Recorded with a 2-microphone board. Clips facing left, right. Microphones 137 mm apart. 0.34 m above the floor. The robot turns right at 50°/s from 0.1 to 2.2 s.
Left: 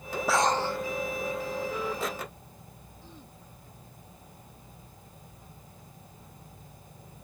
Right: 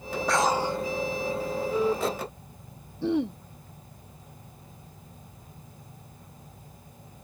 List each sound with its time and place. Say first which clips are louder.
0.3 s breathing: right 1 dB; 5° left (ahead or behind); by 0.8 s 20° right (ahead or behind)
3.0 s throat clearing: right 28 dB; 75° right (ahead or behind)